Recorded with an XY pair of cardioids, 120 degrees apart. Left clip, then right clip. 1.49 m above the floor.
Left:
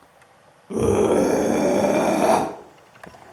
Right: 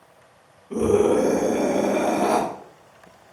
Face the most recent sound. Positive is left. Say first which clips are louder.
# even
turn(degrees=40)